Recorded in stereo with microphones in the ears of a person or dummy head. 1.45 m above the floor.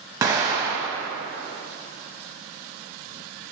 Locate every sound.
0.2 s an explosion: 20° right (ahead or behind), 1.0 m